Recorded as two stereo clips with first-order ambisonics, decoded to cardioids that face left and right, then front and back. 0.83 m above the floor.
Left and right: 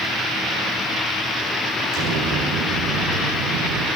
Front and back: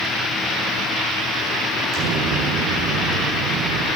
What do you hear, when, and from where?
1.9 s an explosion: 140° right, 8.5 m